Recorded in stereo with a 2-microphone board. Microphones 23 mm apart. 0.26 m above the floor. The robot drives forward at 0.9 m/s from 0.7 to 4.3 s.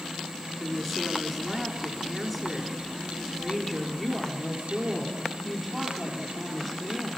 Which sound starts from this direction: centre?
A woman speaking, at 0.6 s.